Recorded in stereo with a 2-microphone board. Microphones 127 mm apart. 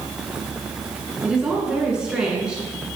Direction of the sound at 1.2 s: 5° right (ahead or behind).